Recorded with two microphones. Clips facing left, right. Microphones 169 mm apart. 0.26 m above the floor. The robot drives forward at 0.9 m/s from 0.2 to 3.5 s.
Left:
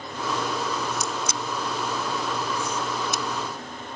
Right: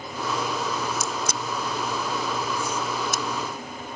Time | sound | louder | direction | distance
0.9 | a crack | even | 55° right (ahead or behind) | ?